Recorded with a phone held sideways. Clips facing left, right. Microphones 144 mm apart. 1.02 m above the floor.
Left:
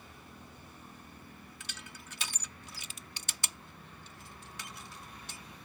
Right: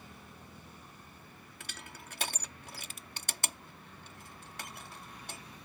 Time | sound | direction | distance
1.6 | crushing | 55° right (ahead or behind) | ?